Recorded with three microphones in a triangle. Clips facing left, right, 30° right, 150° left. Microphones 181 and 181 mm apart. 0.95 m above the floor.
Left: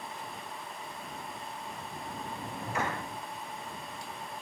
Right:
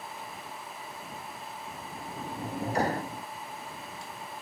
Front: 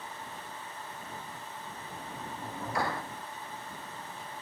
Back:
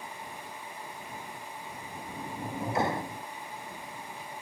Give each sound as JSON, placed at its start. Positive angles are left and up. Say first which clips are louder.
{"t": 1.7, "sound": "a sliding door", "louder": "even, back 1 dB", "azimuth_deg": -140}